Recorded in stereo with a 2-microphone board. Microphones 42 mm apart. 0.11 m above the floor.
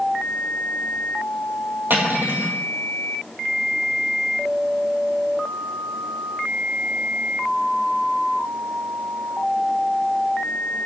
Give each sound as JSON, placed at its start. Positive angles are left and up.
{"t": 1.9, "sound": "cutlery clinking", "side_deg": -55, "distance_m": 1.8}